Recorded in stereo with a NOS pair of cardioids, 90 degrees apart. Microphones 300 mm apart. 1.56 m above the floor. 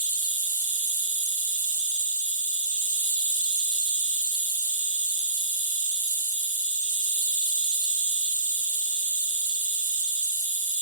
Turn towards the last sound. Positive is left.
turn(degrees=-25)